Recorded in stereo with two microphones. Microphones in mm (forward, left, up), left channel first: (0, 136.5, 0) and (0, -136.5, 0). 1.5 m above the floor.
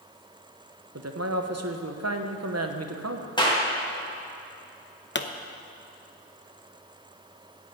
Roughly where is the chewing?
No chewing in this recording.